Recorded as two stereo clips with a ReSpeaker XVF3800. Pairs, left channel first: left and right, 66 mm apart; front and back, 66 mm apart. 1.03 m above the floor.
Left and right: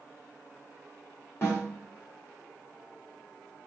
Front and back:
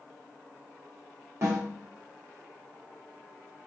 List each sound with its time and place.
1.4 s a snare drum: 140° left, 1.5 m